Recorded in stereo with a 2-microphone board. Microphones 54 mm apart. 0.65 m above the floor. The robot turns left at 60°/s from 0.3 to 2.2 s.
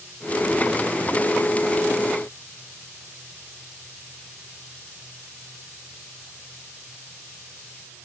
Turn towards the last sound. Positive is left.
No sound to turn to.